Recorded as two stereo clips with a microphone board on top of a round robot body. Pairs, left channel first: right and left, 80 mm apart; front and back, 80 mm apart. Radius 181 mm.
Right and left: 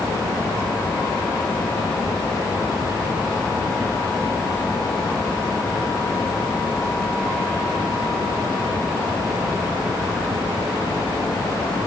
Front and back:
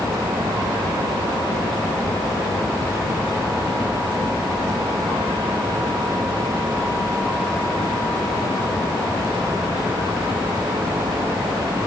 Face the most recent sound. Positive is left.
No sound to turn to.